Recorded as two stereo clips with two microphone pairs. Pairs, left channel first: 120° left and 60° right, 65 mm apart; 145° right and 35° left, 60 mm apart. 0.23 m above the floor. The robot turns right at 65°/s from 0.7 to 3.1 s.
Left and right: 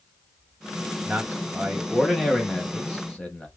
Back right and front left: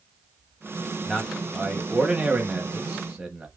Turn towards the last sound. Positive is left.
turn(degrees=85)